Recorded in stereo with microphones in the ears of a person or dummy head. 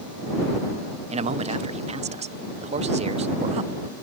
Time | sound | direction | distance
1.1 | a man speaking | 30° right (ahead or behind) | ?